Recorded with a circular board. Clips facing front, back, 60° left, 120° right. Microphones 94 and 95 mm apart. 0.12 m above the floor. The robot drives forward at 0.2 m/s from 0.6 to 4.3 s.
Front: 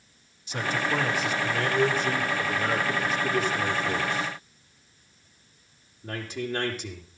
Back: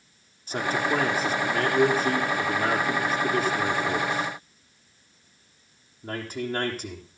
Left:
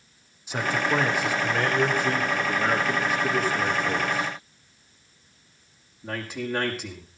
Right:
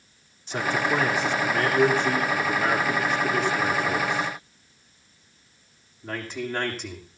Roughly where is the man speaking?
Behind left.